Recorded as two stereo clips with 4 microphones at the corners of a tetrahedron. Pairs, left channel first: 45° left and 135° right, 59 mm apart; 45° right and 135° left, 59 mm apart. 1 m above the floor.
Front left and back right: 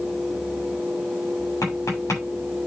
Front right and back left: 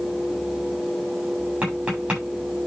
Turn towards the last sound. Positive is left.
turn(degrees=65)